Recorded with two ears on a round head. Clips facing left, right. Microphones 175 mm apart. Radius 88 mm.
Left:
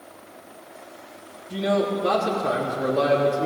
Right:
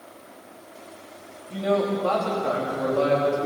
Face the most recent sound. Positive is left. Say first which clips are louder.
# even
turn(degrees=20)  # may be behind; listen again after turning